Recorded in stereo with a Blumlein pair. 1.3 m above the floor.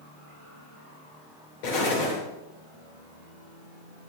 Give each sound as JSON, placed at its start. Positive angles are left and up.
{"t": 1.6, "sound": "an explosion", "azimuth_deg": 45, "distance_m": 8.0}